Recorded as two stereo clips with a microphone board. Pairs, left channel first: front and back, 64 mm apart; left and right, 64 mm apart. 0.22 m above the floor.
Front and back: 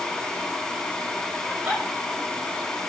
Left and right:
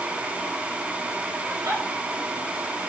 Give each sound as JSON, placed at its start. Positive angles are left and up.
{"t": 1.5, "sound": "a giggle", "azimuth_deg": -115, "distance_m": 6.0}